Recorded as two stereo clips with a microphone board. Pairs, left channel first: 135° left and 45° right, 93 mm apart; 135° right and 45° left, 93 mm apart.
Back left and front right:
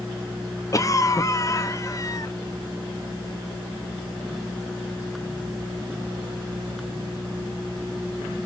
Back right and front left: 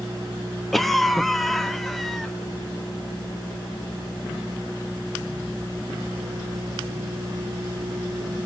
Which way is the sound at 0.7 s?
140° left.